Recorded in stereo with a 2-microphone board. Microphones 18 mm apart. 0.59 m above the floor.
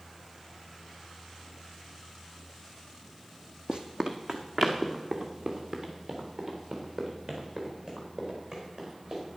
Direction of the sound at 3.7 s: 50° right (ahead or behind).